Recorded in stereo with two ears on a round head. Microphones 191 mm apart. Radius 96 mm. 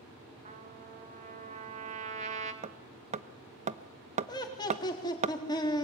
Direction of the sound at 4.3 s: 20° left (ahead or behind).